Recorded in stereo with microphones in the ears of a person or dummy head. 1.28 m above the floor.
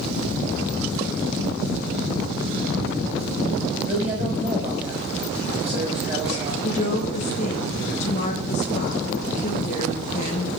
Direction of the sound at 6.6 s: 40° left (ahead or behind).